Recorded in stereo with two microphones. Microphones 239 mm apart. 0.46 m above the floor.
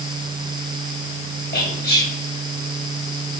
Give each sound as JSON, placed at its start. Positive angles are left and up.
{"t": 1.5, "sound": "whispering", "side_deg": 40, "distance_m": 2.0}